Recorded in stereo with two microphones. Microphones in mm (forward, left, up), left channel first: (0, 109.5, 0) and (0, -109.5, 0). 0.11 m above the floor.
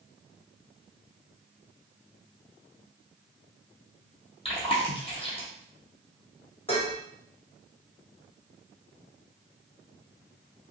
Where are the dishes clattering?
30° left (ahead or behind), 0.9 m.